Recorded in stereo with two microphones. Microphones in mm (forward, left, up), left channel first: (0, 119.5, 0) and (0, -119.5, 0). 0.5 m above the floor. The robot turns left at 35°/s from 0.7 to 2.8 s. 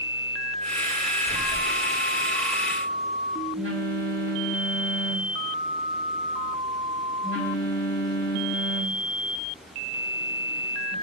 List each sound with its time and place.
1.3 s a phone buzzing: 25° right (ahead or behind), 1.6 m; by 10.9 s 50° right (ahead or behind), 1.6 m